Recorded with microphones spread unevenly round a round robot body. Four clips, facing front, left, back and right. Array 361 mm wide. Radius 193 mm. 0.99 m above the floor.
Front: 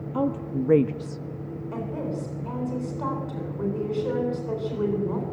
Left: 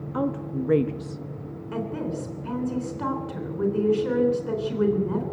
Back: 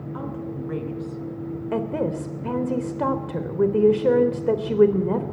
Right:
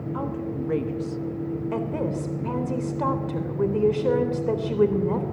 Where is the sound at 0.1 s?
40° left, 1.8 m; by 1.2 s straight ahead, 0.9 m.